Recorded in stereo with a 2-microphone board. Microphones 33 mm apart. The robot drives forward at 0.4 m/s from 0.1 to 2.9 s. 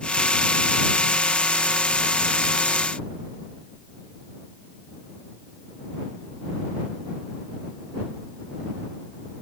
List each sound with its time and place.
Only background noise.